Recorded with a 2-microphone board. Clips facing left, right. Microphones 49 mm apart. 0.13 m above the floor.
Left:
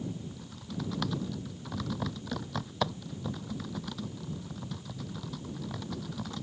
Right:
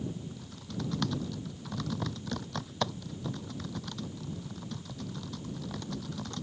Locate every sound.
0.3 s typing on a keyboard: 5° left (ahead or behind)